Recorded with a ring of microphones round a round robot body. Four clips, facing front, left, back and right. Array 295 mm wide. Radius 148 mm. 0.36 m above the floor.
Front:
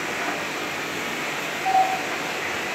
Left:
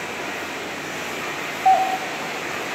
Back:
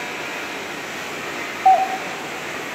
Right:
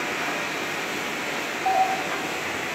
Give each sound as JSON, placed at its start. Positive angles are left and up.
{"t": 1.6, "sound": "a doorbell", "azimuth_deg": 160, "distance_m": 3.0}